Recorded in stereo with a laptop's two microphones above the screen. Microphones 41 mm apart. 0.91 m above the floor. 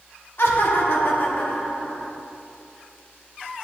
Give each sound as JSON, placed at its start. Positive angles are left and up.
{"t": 0.4, "sound": "laughter", "side_deg": 70, "distance_m": 1.3}